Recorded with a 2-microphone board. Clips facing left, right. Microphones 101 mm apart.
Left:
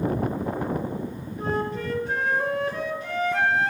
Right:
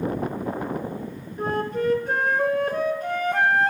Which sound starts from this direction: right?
A flute, at 1.4 s.